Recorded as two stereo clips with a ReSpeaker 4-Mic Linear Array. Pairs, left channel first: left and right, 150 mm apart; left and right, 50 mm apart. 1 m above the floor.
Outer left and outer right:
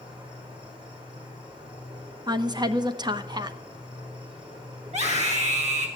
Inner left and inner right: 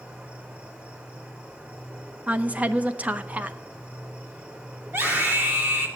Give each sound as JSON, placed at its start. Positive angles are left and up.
{"t": 0.0, "sound": "an insect", "side_deg": -35, "distance_m": 4.0}
{"t": 2.3, "sound": "a woman speaking", "side_deg": -30, "distance_m": 0.8}
{"t": 4.9, "sound": "a scream", "side_deg": -50, "distance_m": 3.5}